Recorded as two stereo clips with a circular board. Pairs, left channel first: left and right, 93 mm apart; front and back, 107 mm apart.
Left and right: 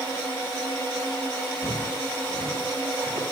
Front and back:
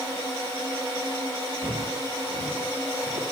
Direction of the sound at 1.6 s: 150° left.